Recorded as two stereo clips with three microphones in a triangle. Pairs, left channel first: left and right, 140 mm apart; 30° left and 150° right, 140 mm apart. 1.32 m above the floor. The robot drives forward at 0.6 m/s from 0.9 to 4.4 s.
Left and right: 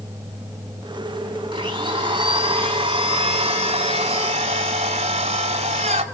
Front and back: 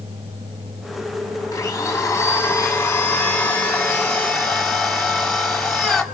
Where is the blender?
40° right, 5 m; by 6.0 s 55° right, 3.5 m.